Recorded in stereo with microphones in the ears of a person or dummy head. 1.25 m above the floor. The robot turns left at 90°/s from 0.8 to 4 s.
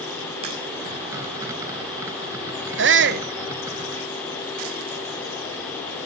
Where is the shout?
85° right, 0.8 m; by 3.3 s 130° right, 0.8 m.